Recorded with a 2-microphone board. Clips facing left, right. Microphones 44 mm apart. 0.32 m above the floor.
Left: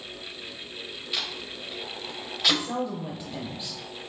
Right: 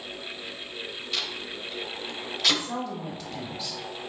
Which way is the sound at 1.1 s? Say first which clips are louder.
Even; 10° left (ahead or behind).